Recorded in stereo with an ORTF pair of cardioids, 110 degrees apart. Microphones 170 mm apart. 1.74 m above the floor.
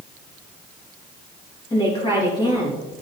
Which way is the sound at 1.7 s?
25° left.